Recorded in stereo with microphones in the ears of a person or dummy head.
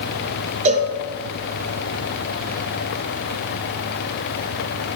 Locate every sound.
0.7 s a cowbell: 35° right (ahead or behind), 1.8 m